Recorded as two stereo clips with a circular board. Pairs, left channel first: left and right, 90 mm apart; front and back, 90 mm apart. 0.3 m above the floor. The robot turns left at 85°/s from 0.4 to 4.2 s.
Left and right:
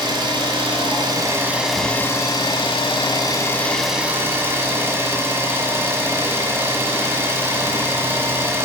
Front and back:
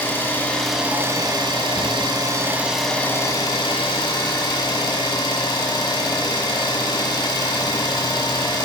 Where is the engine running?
65° right, 0.9 m; by 8.7 s 30° right, 0.9 m.